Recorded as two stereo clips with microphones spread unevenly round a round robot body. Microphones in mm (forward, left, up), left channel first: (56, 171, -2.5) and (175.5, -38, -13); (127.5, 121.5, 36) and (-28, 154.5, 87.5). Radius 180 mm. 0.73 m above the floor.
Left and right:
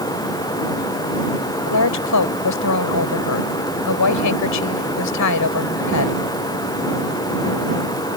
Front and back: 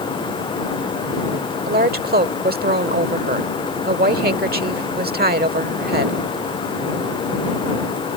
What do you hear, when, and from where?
1.7 s a woman speaking: 140° left